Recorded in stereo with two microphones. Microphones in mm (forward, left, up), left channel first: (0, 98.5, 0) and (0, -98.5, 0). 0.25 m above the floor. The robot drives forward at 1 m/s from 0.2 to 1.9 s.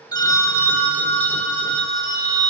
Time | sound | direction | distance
0.1 | a phone ringing | 20° left (ahead or behind) | 0.5 m